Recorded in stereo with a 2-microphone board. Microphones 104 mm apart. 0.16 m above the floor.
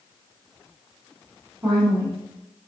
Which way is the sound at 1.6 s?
15° right (ahead or behind).